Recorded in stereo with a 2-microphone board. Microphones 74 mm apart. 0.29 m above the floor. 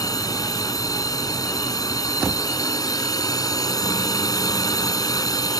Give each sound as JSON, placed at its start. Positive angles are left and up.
{"t": 0.0, "sound": "a drone", "side_deg": 55}